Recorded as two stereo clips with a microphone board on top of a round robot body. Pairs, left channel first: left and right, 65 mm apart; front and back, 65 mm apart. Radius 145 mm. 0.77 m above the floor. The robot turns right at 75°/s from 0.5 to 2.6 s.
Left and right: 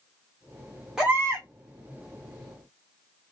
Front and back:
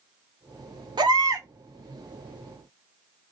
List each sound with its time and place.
1.0 s a baby crying: 175° right, 1.0 m; by 1.5 s 135° right, 1.0 m